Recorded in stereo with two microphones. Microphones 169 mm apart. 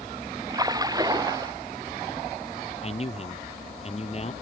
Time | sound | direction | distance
0.5 | a splash | 20° right (ahead or behind) | ?
2.8 | a man speaking | 40° left (ahead or behind) | ?